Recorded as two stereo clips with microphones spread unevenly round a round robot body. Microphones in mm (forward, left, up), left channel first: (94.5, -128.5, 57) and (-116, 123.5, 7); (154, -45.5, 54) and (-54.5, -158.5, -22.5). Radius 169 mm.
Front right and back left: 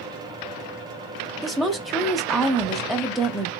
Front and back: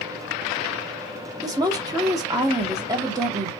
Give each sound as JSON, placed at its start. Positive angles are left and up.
{"t": 1.4, "sound": "a woman speaking", "azimuth_deg": -155, "distance_m": 0.7}